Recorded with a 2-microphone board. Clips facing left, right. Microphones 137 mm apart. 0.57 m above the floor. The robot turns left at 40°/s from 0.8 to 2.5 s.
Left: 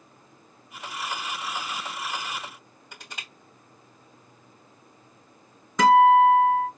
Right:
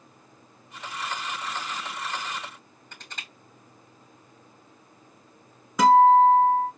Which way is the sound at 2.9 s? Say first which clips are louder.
Left 1 dB; 10° left (ahead or behind).